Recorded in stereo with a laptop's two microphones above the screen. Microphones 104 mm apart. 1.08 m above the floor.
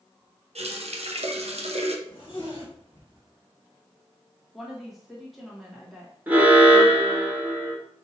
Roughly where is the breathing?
No breathing in this recording.